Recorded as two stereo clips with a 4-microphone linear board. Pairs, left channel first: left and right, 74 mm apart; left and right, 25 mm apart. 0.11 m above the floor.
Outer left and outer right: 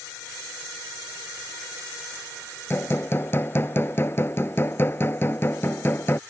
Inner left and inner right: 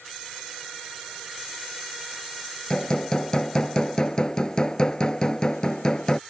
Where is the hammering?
30° left (ahead or behind).